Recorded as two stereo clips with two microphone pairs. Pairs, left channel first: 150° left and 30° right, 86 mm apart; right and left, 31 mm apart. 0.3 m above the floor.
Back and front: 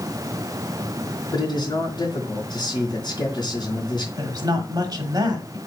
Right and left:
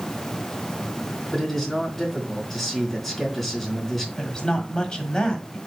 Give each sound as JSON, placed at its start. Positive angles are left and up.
{"t": 1.3, "sound": "a man speaking", "azimuth_deg": 180, "distance_m": 3.0}
{"t": 4.2, "sound": "a woman speaking", "azimuth_deg": -35, "distance_m": 1.3}